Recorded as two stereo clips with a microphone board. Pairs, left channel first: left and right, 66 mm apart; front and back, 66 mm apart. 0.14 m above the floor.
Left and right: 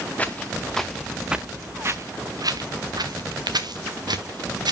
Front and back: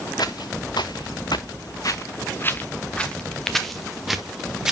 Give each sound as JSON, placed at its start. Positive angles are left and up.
{"t": 0.2, "sound": "footsteps", "azimuth_deg": 20, "distance_m": 1.3}